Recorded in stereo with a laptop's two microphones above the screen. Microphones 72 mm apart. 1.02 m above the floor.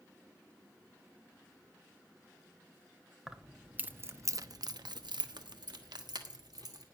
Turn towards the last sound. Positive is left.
turn(degrees=-65)  # may be behind; listen again after turning